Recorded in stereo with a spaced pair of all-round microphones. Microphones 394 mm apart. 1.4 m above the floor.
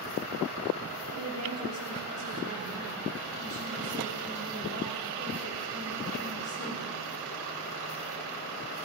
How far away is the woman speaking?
About 5.5 m.